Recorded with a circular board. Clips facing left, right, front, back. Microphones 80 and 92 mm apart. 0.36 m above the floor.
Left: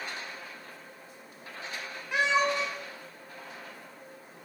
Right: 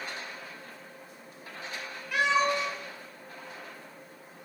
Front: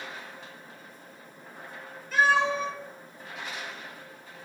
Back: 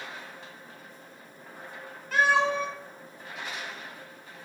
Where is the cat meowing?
155° left, 1.2 m.